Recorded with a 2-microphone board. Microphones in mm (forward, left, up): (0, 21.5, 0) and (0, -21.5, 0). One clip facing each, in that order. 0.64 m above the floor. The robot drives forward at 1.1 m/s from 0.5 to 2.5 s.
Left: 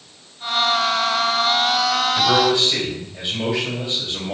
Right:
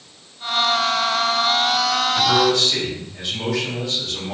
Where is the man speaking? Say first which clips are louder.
Even; 20° left (ahead or behind), 3.5 m.